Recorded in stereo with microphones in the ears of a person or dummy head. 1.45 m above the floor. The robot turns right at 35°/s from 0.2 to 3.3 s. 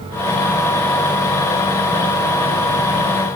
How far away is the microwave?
I don't hear a microwave.